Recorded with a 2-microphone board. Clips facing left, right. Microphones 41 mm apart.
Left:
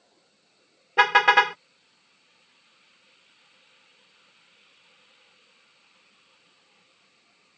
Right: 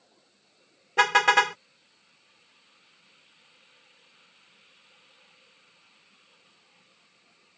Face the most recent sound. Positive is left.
turn(degrees=15)  # may be behind; listen again after turning